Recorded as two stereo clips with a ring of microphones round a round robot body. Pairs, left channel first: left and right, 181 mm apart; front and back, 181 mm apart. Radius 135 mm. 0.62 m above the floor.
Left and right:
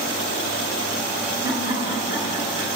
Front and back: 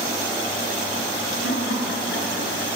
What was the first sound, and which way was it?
Laughter, 25° right.